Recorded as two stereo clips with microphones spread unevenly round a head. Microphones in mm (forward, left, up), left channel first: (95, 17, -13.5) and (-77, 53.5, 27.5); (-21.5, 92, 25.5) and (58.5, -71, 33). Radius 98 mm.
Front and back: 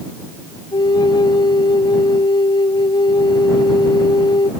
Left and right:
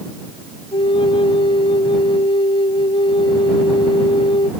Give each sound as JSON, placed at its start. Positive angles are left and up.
{"t": 0.7, "sound": "a flute", "azimuth_deg": 55}